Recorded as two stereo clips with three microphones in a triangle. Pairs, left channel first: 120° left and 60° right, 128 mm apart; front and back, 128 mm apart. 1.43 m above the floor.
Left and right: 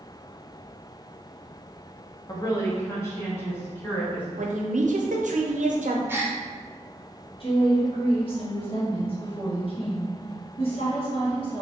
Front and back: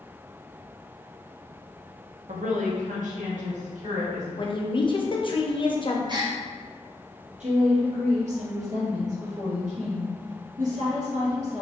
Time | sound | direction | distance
2.3 | a woman speaking | 175° left | 0.6 m
4.4 | a woman speaking | 50° right | 0.6 m
6.1 | a gasp | 130° right | 0.6 m
7.4 | a woman speaking | 160° left | 1.4 m